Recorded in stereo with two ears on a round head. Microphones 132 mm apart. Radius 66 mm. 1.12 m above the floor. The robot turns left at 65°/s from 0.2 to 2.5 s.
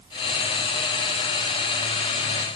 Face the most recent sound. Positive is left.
No sound to turn to.